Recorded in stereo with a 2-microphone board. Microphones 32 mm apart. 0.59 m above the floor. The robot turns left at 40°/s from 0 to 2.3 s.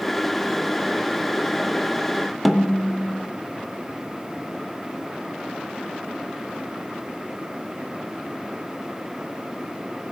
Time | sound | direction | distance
2.5 | a snare drum | 5° right (ahead or behind) | 0.9 m